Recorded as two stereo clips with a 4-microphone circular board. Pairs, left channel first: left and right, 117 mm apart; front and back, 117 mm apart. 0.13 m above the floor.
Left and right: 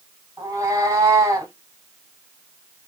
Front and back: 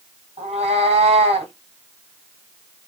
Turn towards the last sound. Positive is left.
turn(degrees=-150)